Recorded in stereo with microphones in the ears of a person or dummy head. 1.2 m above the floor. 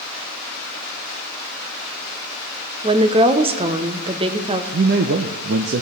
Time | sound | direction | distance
2.8 | a woman speaking | 30° right (ahead or behind) | 0.7 m
4.7 | a man speaking | 55° right (ahead or behind) | 0.6 m